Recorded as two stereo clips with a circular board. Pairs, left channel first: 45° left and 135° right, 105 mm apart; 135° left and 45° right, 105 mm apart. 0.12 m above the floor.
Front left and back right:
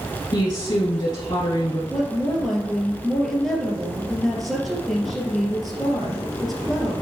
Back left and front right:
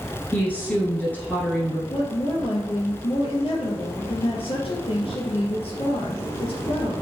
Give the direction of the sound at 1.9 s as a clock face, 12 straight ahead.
8 o'clock.